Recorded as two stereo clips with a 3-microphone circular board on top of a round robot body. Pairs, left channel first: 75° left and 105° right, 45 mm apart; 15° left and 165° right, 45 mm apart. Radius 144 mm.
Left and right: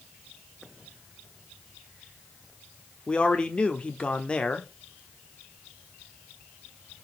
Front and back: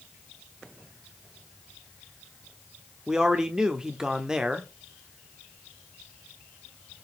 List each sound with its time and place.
3.1 s a man speaking: 125° left, 1.3 m